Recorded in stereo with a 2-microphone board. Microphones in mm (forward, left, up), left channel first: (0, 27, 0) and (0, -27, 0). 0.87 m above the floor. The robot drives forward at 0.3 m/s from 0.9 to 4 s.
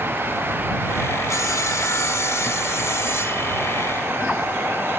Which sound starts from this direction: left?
Sawing, at 1.3 s.